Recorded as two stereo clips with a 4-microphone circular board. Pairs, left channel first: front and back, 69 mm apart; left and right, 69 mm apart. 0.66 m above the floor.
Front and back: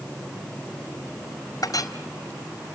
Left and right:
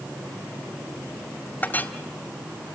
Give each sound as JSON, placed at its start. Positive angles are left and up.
{"t": 1.6, "sound": "a clink", "azimuth_deg": 25, "distance_m": 2.0}